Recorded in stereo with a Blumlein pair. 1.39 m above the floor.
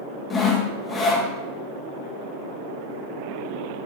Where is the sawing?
15° left, 1.4 m.